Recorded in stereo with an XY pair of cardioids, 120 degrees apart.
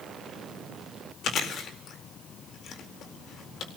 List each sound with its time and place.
1.2 s chewing: 55° left, 4 m